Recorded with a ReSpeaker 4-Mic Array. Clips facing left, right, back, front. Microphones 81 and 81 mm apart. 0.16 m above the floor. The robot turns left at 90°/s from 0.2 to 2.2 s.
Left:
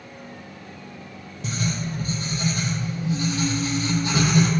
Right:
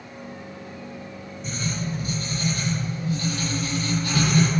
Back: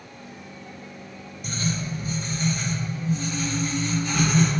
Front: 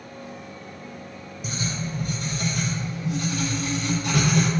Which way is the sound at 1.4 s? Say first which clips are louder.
Left 2 dB, back 2 dB; 85° left.